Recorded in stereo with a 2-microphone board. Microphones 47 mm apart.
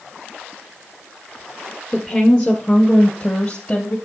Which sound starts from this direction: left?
A woman speaking, at 1.9 s.